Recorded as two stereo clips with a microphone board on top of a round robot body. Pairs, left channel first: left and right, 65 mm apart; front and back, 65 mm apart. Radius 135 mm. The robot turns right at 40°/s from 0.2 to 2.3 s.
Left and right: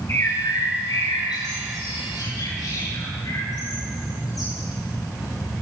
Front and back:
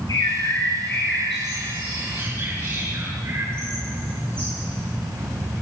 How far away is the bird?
About 10 m.